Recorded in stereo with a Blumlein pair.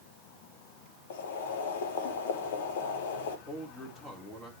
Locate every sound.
1.1 s boiling: 55° left, 1.7 m
3.5 s a man speaking: 15° left, 3.5 m